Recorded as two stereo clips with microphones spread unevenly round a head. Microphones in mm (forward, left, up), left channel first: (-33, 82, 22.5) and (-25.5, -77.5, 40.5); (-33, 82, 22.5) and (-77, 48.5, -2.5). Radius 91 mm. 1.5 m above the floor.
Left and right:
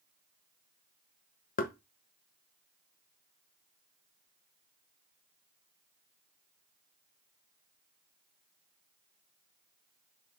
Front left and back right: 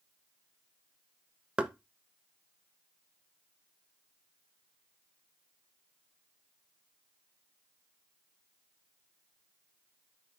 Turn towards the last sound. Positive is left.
turn(degrees=130)